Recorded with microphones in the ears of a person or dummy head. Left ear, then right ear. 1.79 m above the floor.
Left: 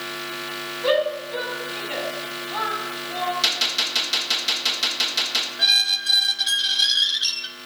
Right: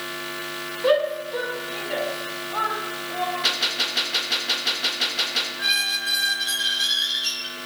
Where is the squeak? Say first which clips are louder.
Left 6 dB; 45° left (ahead or behind), 1.1 m.